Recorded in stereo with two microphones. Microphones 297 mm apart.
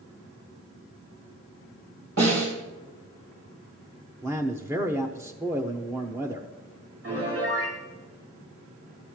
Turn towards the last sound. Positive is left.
turn(degrees=-50)  # may be behind; listen again after turning